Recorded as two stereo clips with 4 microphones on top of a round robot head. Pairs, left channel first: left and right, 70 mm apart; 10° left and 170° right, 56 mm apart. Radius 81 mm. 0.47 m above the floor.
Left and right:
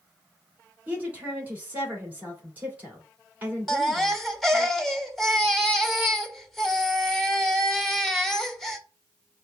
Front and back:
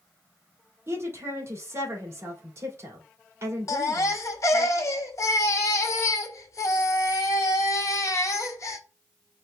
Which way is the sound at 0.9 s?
150° right.